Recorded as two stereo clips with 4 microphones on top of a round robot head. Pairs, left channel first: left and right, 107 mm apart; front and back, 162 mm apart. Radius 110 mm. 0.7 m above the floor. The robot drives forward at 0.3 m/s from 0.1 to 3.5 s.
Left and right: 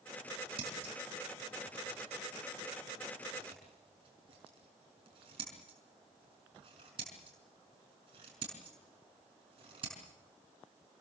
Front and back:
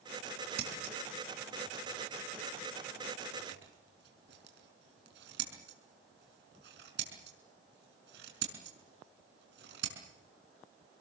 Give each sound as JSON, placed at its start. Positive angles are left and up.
{"t": 0.6, "sound": "scissors", "azimuth_deg": -140, "distance_m": 5.0}